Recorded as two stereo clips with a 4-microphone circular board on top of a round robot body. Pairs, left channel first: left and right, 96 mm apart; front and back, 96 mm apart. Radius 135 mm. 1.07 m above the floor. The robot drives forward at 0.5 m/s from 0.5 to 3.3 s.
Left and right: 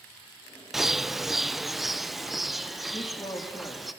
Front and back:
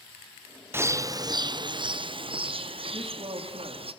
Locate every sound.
0.7 s a bird: 170° right, 0.7 m; by 3.9 s straight behind, 1.6 m
2.9 s a woman speaking: 140° left, 2.5 m